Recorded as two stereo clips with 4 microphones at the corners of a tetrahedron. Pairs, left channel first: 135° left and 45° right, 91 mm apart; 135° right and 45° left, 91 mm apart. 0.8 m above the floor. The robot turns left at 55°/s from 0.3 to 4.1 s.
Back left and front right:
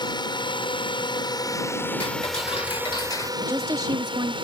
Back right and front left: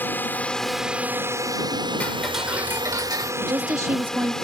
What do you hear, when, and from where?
0.0 s a drone: 160° left; by 4.4 s 50° right
2.0 s ticking: 150° left; by 3.3 s 80° left
3.4 s a woman speaking: 15° left; by 4.3 s 20° right